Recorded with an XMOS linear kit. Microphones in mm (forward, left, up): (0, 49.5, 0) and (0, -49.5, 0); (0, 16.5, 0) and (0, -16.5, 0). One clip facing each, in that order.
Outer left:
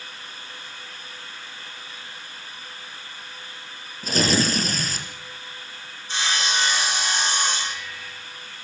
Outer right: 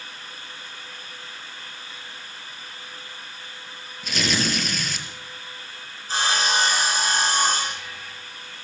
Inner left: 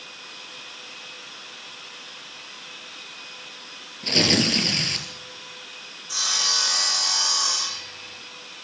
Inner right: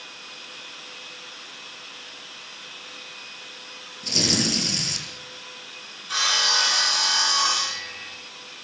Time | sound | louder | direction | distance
4.0 | tearing paper | outer left 4 dB, inner left 4 dB | 35° left (ahead or behind) | 4 m
6.1 | sawing | outer right 3 dB, inner right 4 dB | 40° right (ahead or behind) | 7 m